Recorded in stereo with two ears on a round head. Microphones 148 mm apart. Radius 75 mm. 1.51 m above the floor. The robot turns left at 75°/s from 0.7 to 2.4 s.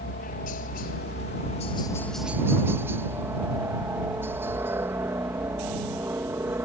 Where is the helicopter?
110° left; by 6.7 s 15° right.